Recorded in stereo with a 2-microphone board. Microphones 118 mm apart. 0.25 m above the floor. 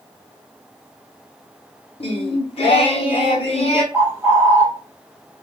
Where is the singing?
55° left (ahead or behind), 0.6 m.